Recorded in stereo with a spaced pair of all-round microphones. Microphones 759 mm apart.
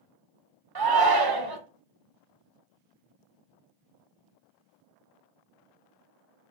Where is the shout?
35° right (ahead or behind), 0.5 m.